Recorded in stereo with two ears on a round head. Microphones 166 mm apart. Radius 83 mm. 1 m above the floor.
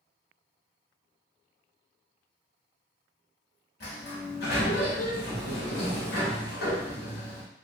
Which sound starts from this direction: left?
A sliding door, at 3.8 s.